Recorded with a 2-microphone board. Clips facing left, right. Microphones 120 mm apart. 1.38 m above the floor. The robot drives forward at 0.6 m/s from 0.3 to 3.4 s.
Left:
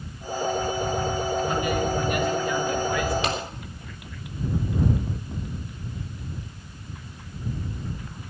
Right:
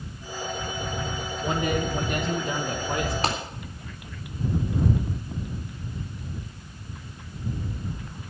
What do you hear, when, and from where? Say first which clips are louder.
1.4 s a man speaking: left 2 dB; 65° right (ahead or behind), 1.7 m; by 3.1 s 45° right (ahead or behind), 2.5 m
3.2 s a clap: even; 40° right (ahead or behind), 3.5 m